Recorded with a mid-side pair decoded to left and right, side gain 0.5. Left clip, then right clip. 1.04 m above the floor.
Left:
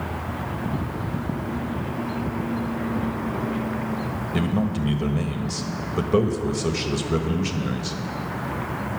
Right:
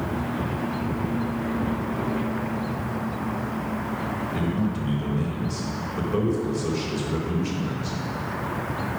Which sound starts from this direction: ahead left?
A man speaking, at 4.3 s.